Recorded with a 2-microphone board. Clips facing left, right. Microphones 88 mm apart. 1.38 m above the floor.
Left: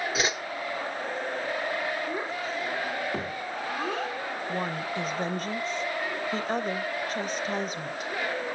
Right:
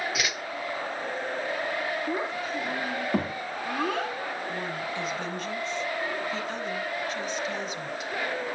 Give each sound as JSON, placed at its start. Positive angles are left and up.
{"t": 0.1, "sound": "a whoosh", "side_deg": 30, "distance_m": 0.9}
{"t": 2.1, "sound": "a child speaking", "side_deg": -65, "distance_m": 2.5}
{"t": 4.5, "sound": "a woman speaking", "side_deg": 40, "distance_m": 1.1}